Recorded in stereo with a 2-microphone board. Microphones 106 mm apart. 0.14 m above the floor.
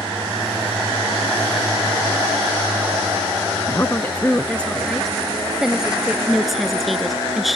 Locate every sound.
3.7 s a woman speaking: 30° left (ahead or behind); by 6.2 s 10° right (ahead or behind)
6.3 s a woman speaking: centre (ahead or behind)